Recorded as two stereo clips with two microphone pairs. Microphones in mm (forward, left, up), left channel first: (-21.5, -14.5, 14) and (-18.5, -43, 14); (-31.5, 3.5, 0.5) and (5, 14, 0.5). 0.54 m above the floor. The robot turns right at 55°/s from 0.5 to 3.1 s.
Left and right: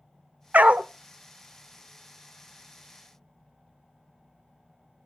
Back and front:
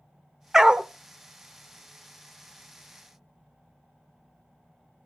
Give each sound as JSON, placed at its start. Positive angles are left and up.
{"t": 0.5, "sound": "a dog barking", "azimuth_deg": -65, "distance_m": 0.6}